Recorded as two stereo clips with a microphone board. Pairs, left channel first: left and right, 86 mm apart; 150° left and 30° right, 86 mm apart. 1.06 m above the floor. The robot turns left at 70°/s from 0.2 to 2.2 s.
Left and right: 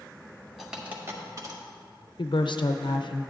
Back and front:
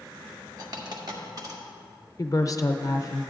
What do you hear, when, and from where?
0.6 s a dropped coin: straight ahead, 1.3 m; by 1.6 s 70° right, 1.3 m
2.2 s a woman speaking: 105° left, 0.6 m